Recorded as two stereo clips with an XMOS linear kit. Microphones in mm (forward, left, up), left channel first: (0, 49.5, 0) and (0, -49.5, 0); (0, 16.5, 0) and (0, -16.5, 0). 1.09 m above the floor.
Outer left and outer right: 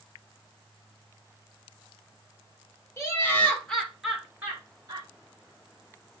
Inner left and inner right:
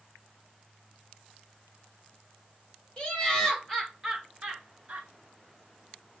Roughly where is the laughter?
Left.